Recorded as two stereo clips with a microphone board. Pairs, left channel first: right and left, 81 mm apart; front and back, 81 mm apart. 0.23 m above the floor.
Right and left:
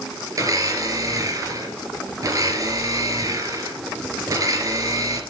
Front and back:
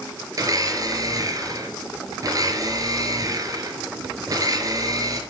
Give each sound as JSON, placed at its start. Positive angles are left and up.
{"t": 0.4, "sound": "a blender", "azimuth_deg": 135, "distance_m": 3.5}